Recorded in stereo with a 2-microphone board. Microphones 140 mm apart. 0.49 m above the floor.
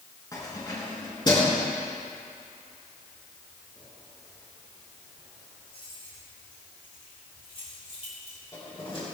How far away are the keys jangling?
About 4.5 m.